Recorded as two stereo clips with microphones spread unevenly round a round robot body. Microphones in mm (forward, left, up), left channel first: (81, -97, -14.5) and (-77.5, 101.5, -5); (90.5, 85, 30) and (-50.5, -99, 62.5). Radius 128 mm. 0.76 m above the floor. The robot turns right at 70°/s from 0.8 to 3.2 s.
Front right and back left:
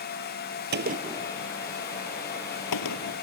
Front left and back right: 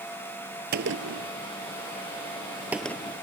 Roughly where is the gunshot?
Behind.